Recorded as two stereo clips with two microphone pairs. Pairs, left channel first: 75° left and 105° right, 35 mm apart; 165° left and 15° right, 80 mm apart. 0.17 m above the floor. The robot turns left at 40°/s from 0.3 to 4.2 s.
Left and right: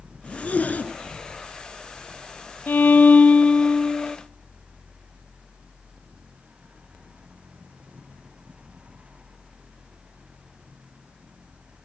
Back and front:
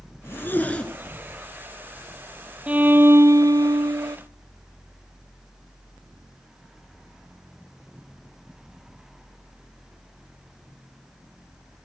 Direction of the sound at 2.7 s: 55° left.